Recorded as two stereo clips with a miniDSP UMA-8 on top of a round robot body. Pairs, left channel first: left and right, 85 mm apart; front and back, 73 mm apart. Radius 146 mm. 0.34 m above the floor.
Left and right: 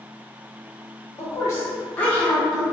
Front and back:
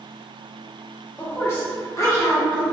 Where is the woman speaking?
60° left, 1.2 m; by 2.6 s 5° left, 1.4 m.